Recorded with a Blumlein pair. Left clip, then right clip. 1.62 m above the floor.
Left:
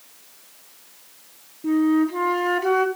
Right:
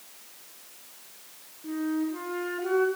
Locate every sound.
1.6 s a flute: 40° left, 1.4 m